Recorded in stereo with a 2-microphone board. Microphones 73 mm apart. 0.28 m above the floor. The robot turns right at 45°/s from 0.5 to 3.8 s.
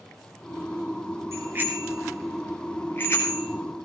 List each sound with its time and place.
1.3 s a bicycle bell: 45° right (ahead or behind), 3.5 m; by 3.5 s 50° left (ahead or behind), 3.5 m